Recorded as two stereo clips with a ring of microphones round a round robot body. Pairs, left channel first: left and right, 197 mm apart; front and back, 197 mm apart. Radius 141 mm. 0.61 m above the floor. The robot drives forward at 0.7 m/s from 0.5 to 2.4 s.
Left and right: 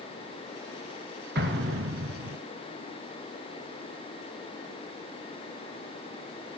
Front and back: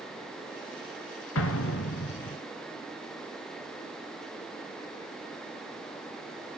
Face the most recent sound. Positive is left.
turn(degrees=-60)